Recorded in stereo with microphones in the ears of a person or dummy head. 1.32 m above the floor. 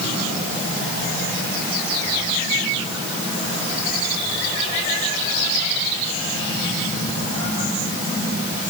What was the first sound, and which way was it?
Only background noise.